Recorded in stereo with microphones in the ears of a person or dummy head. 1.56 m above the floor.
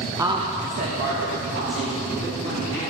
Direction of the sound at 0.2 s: 15° right (ahead or behind).